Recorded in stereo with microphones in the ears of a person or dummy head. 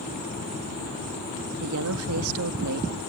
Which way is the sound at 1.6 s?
75° right (ahead or behind).